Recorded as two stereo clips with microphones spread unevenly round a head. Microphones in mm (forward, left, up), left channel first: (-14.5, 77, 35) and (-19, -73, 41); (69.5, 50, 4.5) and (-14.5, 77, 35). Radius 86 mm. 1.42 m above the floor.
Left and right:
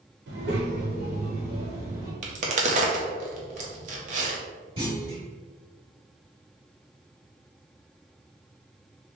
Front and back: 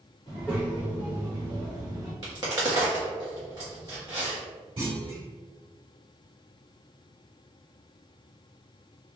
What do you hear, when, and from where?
0.3 s a child speaking: 90° right, 1.0 m; by 2.1 s 155° right, 1.8 m
2.2 s a crack: 135° right, 0.8 m
4.8 s a clunk: 150° right, 2.0 m